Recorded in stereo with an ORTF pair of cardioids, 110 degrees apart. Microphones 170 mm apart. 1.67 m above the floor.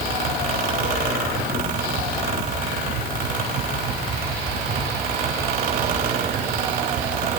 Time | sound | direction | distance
0.0 | a fan | 65° right | 5 m